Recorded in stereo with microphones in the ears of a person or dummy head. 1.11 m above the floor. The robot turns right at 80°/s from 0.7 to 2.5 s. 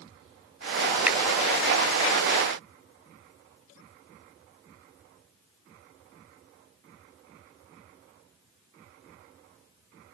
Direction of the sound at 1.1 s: Centre (ahead or behind).